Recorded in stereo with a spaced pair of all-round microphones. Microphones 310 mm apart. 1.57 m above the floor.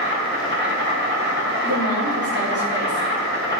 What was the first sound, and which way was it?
An insect, 35° right (ahead or behind).